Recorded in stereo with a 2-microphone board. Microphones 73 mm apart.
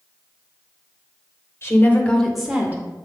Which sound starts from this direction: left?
A woman speaking, at 1.6 s.